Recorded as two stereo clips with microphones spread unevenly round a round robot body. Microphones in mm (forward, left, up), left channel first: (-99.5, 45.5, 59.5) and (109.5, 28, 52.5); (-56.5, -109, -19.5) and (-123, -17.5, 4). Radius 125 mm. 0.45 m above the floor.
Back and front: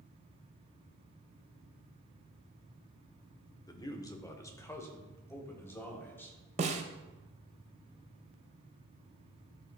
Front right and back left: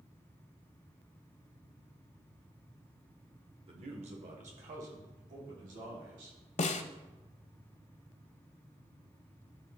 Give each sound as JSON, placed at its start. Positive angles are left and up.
{"t": 3.7, "sound": "a man speaking", "azimuth_deg": 115, "distance_m": 1.0}
{"t": 6.6, "sound": "a snare drum", "azimuth_deg": -65, "distance_m": 0.6}